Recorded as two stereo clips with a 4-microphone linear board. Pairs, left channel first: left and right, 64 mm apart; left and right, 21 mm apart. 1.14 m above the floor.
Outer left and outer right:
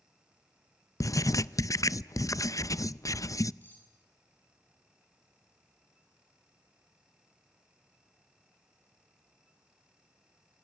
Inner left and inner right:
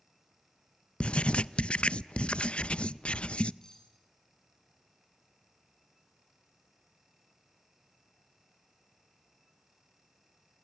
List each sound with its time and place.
1.0 s writing: 60° left (ahead or behind), 0.5 m
3.6 s cutlery clinking: 30° left (ahead or behind), 8 m